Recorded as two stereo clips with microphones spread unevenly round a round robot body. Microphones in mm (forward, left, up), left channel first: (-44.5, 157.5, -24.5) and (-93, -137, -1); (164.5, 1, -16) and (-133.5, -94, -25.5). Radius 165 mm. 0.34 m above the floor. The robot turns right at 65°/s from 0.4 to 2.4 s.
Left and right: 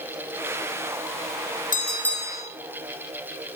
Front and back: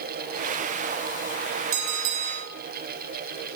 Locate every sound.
1.7 s a bell: 145° left, 4 m; by 2.5 s 170° right, 4 m